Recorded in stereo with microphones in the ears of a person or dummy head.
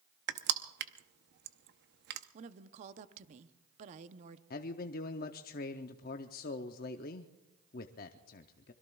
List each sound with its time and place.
0.3 s crushing: 60° right (ahead or behind), 0.8 m
2.3 s a woman speaking: 35° right (ahead or behind), 0.7 m
4.5 s a man speaking: 40° left (ahead or behind), 0.7 m